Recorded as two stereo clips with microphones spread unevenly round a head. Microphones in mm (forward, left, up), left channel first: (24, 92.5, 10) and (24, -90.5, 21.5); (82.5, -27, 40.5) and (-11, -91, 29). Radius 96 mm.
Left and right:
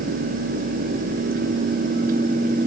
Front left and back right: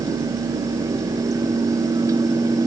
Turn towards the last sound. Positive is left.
No sound to turn to.